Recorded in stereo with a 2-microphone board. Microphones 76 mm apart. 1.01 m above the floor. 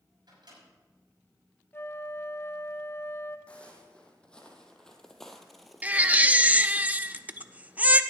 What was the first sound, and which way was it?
A microwave, 75° right (ahead or behind).